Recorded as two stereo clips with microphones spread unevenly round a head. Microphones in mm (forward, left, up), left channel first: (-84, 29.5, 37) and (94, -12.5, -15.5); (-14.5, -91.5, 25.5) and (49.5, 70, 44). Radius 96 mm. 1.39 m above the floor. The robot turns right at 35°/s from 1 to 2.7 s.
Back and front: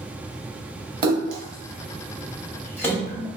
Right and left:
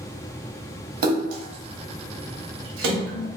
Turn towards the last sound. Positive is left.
turn(degrees=90)